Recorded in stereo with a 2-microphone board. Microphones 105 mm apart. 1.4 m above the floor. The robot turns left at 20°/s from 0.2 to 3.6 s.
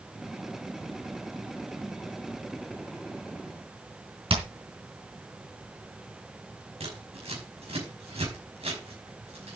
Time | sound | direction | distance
4.3 | hammering | 60° right (ahead or behind) | 3.5 m
6.8 | scissors | 80° right | 5.5 m